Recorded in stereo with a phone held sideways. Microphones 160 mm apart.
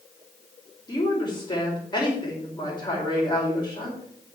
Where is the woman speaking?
30° left (ahead or behind), 4.5 m.